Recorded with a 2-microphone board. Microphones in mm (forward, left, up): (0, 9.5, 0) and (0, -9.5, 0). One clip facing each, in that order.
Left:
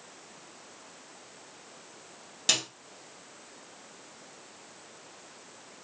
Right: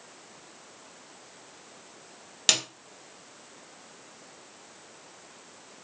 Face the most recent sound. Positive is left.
turn(degrees=-45)  # may be behind; listen again after turning